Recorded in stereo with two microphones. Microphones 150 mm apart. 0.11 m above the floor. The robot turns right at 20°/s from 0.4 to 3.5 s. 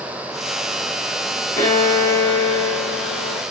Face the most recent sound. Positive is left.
turn(degrees=85)